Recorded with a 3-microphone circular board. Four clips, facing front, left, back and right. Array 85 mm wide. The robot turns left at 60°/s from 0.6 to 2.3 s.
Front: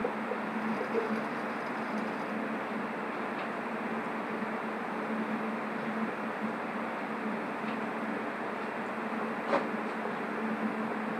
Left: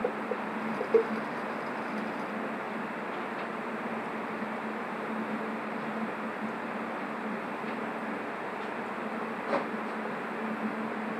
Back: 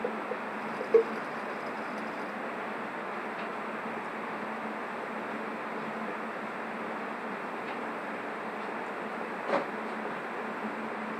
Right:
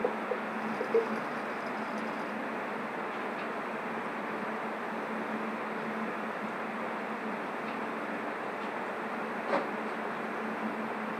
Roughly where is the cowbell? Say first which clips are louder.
Left 4 dB, back 11 dB; behind left.